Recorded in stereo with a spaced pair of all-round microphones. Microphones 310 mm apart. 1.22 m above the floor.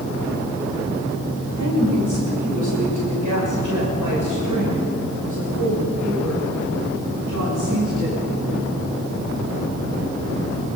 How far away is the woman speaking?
About 5.5 m.